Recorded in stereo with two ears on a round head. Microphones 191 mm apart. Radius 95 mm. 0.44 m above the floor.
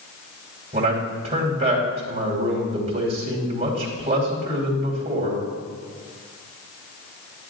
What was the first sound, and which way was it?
A man speaking, 30° right (ahead or behind).